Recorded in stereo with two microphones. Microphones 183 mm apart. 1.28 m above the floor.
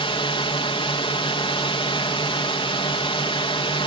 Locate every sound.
0.0 s a drone: 30° left (ahead or behind)